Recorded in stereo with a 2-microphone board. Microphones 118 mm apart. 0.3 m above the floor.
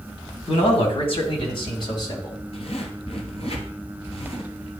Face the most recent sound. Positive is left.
turn(degrees=55)  # may be behind; listen again after turning